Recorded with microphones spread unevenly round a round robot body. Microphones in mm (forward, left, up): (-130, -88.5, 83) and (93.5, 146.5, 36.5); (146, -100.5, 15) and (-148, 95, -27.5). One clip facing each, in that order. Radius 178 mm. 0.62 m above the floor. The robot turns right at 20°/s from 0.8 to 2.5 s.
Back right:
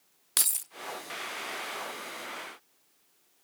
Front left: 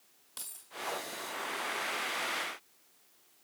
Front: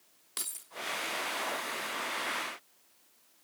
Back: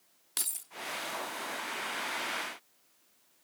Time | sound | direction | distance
0.4 | keys jangling | 140° right | 0.5 m